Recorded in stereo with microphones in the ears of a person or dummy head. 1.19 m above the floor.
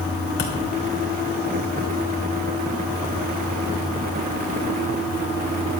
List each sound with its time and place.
0.4 s a thud: 45° left (ahead or behind), 2.5 m